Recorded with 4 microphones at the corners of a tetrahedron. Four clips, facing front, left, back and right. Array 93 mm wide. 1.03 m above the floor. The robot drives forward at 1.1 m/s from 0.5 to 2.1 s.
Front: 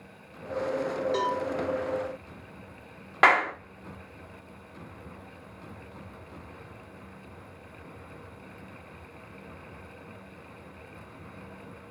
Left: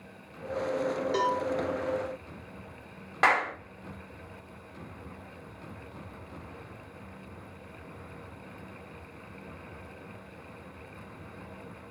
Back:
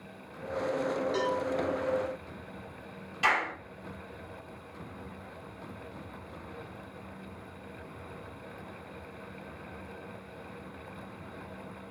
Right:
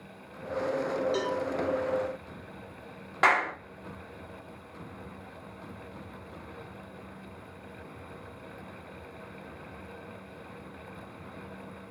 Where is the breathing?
I don't hear breathing.